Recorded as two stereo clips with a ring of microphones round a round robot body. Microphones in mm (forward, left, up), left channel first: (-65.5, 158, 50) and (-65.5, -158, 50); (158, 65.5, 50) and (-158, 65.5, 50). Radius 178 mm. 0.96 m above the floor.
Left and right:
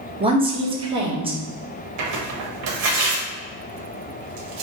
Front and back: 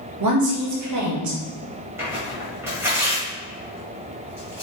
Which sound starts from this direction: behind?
A woman speaking, at 0.2 s.